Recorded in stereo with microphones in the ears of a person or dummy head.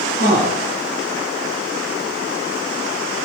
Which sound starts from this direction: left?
A man speaking, at 0.2 s.